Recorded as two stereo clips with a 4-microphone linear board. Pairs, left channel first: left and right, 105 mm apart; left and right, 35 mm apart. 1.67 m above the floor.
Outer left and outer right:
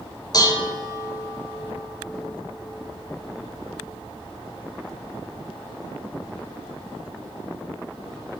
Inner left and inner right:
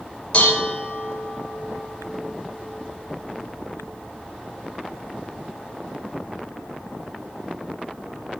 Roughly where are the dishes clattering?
Left.